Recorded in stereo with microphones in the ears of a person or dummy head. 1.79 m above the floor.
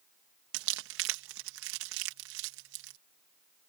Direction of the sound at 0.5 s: 65° right (ahead or behind).